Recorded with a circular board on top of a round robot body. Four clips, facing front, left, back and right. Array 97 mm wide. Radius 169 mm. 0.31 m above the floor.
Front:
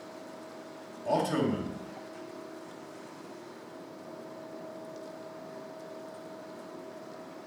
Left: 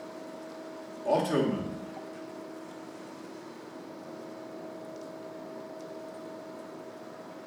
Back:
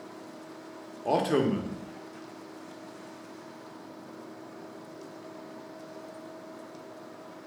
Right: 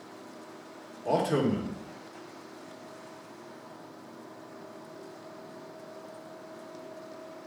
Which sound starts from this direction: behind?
A man speaking, at 1.1 s.